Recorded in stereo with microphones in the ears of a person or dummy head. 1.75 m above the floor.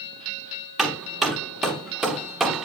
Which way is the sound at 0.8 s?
5° right (ahead or behind).